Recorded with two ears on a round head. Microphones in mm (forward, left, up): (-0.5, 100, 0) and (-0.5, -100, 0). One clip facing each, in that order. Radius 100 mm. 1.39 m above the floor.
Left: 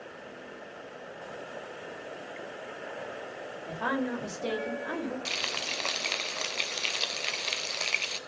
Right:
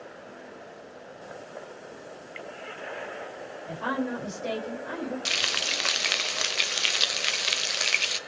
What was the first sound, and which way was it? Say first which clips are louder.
A woman speaking: right 1 dB; 55° left (ahead or behind).